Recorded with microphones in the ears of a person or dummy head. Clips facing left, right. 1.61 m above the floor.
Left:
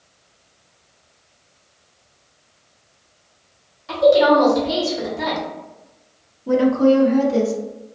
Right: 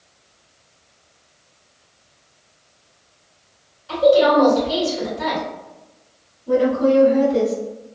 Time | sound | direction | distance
3.9 | a woman speaking | 75° left (ahead or behind) | 1.4 m
6.5 | a woman speaking | 80° left | 0.7 m